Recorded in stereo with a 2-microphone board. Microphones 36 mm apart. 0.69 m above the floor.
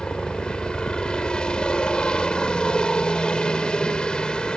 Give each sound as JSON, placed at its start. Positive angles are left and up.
{"t": 0.0, "sound": "a helicopter", "side_deg": 25}